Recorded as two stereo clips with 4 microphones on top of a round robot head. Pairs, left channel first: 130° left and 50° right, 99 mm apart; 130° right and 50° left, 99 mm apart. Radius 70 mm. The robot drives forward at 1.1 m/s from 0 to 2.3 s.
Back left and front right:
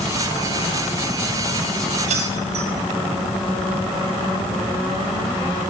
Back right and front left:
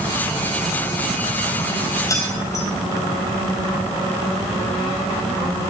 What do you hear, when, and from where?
2.1 s keys jangling: 70° right, 4.5 m